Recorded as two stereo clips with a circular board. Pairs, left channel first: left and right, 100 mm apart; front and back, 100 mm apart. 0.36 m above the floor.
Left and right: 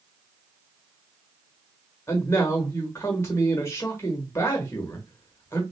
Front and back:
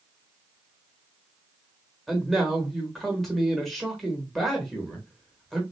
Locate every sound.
2.1 s a man speaking: 85° left, 1.0 m